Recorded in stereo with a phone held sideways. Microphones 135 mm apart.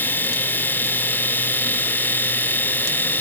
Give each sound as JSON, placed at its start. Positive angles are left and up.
{"t": 0.0, "sound": "a machine running", "side_deg": 15}